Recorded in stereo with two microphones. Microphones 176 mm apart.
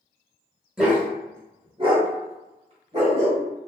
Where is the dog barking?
5° right (ahead or behind), 0.8 m; by 3.4 s 40° right (ahead or behind), 1.3 m.